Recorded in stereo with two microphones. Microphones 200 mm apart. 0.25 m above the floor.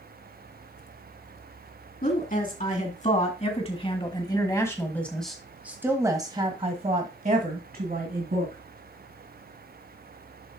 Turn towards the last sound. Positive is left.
turn(degrees=-55)  # may be behind; listen again after turning